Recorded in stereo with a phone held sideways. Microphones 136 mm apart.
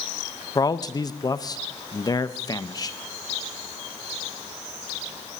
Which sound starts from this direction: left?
A man speaking, at 0.6 s.